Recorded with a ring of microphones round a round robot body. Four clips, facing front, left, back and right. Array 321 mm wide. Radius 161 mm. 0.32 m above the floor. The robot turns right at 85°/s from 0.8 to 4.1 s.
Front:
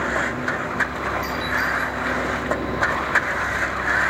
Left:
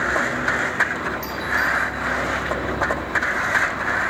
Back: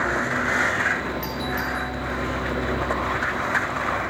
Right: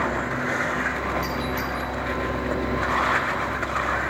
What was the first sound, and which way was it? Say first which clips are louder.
A doorbell: left 3 dB, front 3 dB; 165° left.